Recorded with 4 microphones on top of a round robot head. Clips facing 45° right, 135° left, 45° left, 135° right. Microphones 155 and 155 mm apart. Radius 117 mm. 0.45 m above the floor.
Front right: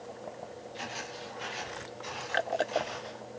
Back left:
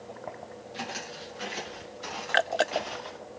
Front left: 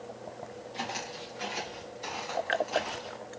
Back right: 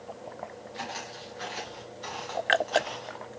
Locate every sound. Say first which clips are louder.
0.7 s footsteps: back left 4 dB, front left 2 dB; 115° left, 6 m; by 3.2 s 130° left, 5.5 m